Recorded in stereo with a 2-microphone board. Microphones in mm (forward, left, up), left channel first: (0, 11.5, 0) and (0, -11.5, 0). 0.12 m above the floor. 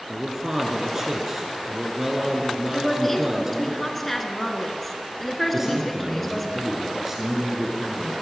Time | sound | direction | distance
0.1 | a man speaking | 20° right (ahead or behind) | 1.4 m
2.7 | a woman speaking | 5° left (ahead or behind) | 1.2 m
5.5 | a man speaking | 15° right (ahead or behind) | 1.9 m